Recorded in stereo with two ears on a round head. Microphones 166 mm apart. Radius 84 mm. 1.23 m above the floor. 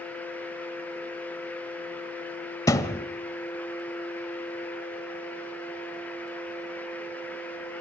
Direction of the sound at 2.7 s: 20° left (ahead or behind).